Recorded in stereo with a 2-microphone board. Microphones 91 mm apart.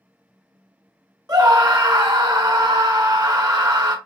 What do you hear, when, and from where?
1.3 s a scream: 45° right (ahead or behind), 1.5 m